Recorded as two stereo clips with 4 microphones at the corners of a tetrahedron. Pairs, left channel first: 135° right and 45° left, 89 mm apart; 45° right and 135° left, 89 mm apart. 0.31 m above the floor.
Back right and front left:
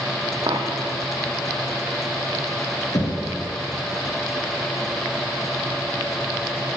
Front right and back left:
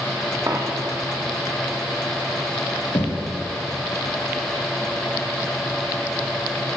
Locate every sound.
0.5 s a dropped coin: 80° left, 3.5 m
2.9 s knocking: 90° right, 5.5 m